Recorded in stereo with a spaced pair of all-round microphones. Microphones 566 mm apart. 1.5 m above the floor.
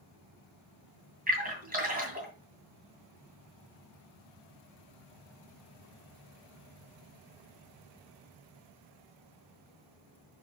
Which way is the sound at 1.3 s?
15° right (ahead or behind).